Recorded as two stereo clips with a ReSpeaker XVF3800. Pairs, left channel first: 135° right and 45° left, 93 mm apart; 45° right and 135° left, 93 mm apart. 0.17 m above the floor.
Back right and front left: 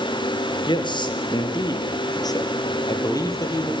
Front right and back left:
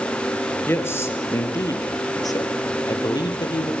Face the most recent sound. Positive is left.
turn(degrees=-85)